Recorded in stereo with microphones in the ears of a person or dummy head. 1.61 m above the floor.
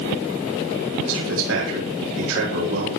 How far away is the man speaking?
About 8 m.